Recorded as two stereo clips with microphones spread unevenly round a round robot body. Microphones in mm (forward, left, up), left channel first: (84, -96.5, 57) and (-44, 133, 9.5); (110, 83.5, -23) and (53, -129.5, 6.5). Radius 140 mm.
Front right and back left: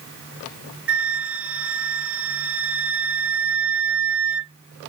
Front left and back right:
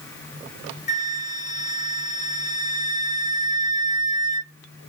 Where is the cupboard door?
I don't hear a cupboard door.